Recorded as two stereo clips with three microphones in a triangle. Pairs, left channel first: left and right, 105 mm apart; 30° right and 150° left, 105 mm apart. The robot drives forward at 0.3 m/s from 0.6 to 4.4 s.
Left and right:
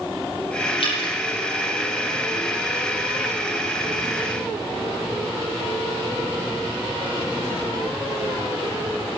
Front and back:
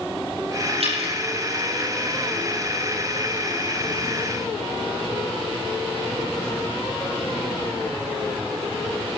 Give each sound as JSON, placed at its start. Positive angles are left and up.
{"t": 0.8, "sound": "dripping", "azimuth_deg": 125, "distance_m": 5.5}